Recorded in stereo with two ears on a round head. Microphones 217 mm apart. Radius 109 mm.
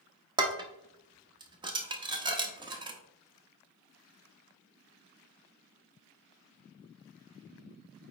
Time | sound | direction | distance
0.4 | dishes clattering | 20° right (ahead or behind) | 0.9 m